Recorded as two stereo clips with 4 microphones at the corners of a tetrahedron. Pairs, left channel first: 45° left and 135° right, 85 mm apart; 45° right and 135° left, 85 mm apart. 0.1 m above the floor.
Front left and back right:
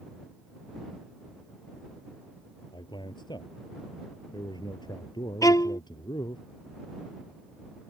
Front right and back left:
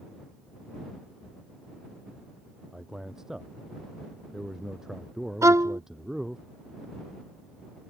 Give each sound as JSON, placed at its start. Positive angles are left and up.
{"t": 2.7, "sound": "a man speaking", "azimuth_deg": 50}
{"t": 5.4, "sound": "a violin", "azimuth_deg": 85}